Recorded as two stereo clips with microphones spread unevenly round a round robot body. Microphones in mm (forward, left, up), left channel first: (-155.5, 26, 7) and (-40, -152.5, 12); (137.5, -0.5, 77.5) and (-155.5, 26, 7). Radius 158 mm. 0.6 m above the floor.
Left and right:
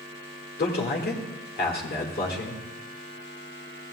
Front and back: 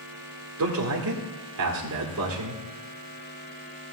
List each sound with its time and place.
0.6 s a man speaking: 160° left, 1.9 m